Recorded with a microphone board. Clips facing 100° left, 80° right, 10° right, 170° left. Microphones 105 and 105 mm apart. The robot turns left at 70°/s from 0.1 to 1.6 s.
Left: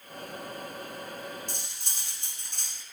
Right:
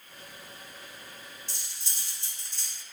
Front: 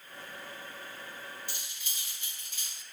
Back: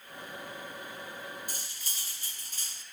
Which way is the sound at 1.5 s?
130° left.